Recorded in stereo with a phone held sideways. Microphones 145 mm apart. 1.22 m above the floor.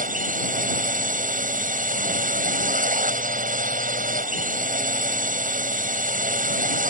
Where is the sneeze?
I don't hear a sneeze.